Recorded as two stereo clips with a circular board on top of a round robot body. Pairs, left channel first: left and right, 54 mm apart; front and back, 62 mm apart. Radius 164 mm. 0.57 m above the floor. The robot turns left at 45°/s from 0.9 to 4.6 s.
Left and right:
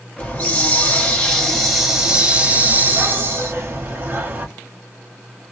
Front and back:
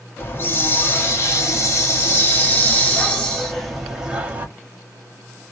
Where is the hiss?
40° left, 1.7 m; by 4.5 s 120° right, 1.7 m.